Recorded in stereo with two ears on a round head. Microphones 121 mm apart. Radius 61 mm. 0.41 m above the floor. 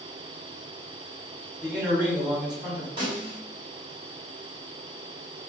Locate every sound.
1.6 s a man speaking: 10° right (ahead or behind), 1.6 m
3.0 s a snare drum: 35° right (ahead or behind), 1.6 m